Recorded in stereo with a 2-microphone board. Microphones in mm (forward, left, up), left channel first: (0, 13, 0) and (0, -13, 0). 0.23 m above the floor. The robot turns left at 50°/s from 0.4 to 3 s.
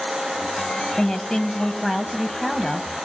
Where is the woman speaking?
25° left (ahead or behind), 1.4 m; by 2.9 s 10° left (ahead or behind), 1.4 m.